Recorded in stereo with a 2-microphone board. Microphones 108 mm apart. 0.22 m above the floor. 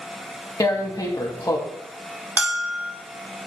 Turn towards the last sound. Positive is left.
turn(degrees=-10)  # may be behind; listen again after turning